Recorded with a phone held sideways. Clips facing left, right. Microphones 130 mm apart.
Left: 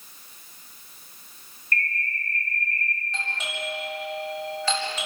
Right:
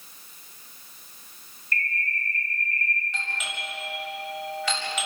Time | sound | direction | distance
1.7 | a bird | 45° left (ahead or behind) | 3 m
3.1 | a doorbell | 35° left (ahead or behind) | 8.5 m